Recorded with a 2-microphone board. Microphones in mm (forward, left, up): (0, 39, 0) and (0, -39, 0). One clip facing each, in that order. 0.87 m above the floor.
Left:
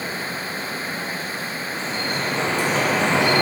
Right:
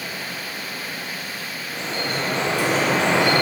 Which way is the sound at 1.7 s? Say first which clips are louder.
Right 1 dB; 75° right (ahead or behind).